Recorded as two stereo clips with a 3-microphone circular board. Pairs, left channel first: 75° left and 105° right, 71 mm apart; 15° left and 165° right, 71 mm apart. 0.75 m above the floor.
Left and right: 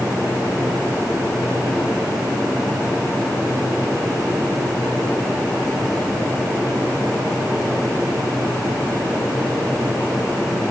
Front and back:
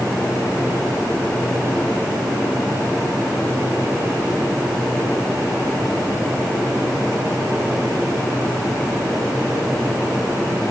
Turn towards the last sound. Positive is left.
No sound to turn to.